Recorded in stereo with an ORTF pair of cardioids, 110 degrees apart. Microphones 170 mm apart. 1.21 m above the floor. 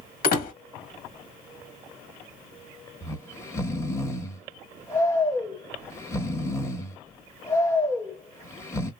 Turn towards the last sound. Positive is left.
turn(degrees=15)